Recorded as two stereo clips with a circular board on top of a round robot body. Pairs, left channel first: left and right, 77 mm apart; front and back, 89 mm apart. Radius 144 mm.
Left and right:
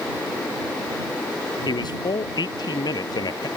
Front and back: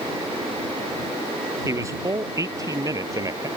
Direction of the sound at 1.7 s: 125° left.